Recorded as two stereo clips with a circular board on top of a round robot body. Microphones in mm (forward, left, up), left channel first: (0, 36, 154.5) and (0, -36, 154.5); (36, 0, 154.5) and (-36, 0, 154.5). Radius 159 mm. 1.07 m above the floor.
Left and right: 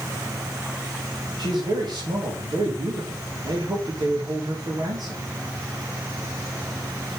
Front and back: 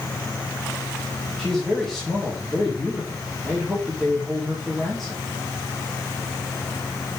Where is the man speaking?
85° right, 3 m.